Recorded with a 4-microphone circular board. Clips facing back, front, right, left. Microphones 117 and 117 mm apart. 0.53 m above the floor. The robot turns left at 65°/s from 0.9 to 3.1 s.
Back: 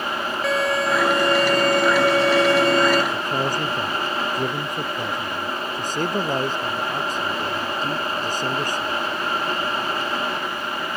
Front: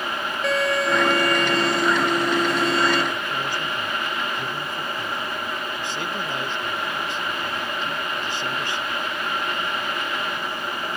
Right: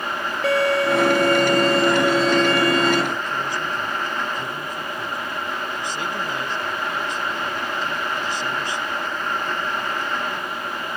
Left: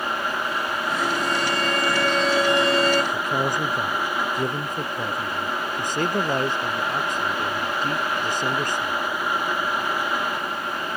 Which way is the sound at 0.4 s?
90° right.